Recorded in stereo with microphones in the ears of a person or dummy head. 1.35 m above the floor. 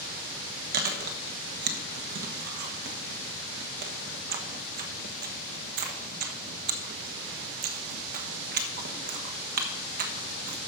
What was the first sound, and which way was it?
Chewing, 55° right (ahead or behind).